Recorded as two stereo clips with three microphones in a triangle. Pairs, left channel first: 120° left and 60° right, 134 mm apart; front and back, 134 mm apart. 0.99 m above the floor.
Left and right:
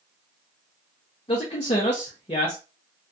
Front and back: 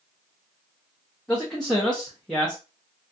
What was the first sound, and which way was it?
A man speaking, 85° left.